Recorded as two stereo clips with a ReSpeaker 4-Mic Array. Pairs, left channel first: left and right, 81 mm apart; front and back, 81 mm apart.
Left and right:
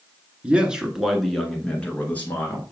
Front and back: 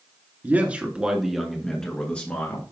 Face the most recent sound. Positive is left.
turn(degrees=50)